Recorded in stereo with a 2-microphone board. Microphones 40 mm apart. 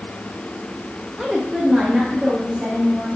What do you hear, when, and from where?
1.2 s a woman speaking: 10° right (ahead or behind), 0.8 m; by 3.2 s 20° right (ahead or behind), 1.8 m